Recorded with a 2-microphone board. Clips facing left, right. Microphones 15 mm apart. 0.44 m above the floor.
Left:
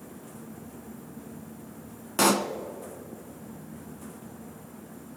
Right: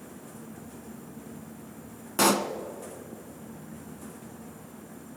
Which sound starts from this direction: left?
A pop, at 2.2 s.